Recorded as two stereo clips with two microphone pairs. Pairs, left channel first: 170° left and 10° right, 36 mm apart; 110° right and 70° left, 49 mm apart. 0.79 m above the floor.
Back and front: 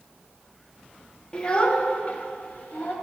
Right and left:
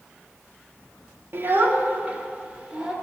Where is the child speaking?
105° left, 0.9 m; by 2.9 s 140° left, 1.6 m.